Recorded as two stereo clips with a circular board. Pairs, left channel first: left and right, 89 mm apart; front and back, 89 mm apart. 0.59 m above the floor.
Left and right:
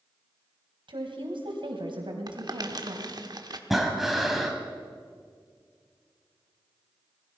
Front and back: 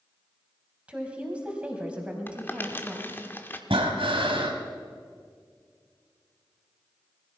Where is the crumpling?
65° right, 1.1 m.